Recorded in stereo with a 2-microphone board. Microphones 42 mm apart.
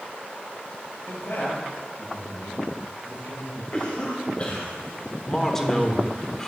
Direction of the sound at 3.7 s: 35° left (ahead or behind).